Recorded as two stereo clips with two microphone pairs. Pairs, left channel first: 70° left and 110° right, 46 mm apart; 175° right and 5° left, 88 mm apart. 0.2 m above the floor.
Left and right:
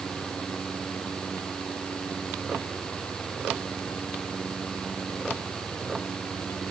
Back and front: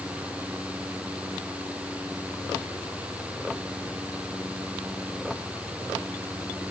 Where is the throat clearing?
I don't hear throat clearing.